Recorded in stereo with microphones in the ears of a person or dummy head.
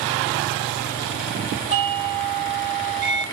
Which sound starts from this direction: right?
A doorbell, at 1.7 s.